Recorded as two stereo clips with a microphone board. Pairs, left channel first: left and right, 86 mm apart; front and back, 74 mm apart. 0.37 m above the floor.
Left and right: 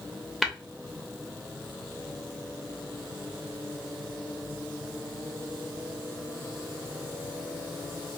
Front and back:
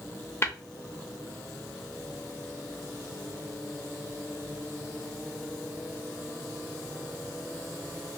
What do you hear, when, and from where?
0.4 s tapping: 5° right, 0.6 m